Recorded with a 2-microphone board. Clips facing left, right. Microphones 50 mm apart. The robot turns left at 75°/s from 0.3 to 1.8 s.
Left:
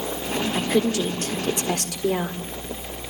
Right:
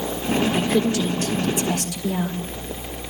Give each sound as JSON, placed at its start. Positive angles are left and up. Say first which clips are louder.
{"t": 0.5, "sound": "a woman speaking", "louder": "right 1 dB", "azimuth_deg": -175, "distance_m": 1.8}